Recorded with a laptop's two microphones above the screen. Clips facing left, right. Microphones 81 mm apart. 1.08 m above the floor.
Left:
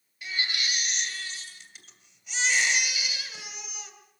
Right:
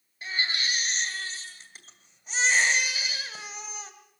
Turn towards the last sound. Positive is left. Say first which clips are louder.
# right 2 dB
turn(degrees=-35)  # may be behind; listen again after turning